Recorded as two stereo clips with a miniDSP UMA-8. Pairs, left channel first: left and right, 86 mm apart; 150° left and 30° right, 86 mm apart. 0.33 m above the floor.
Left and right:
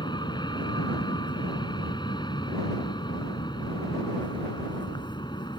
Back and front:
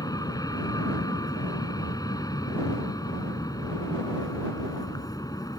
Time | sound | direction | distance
0.0 | an aircraft | 110° left | ?